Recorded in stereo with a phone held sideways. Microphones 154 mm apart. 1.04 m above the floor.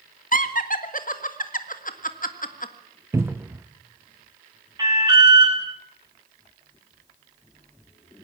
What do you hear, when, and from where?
0.3 s laughter: 55° left (ahead or behind), 1.6 m
3.1 s a cupboard door: 15° right (ahead or behind), 0.5 m
4.8 s an alarm: 25° right (ahead or behind), 7.5 m